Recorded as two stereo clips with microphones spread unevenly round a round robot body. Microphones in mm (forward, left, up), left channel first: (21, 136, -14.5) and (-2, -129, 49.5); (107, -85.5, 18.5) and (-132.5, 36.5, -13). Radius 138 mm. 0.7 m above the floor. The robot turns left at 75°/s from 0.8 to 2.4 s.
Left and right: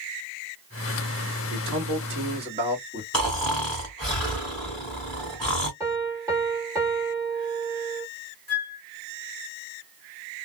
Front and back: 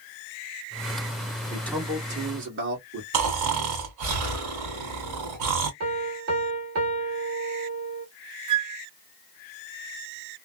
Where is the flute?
155° right, 1.9 m.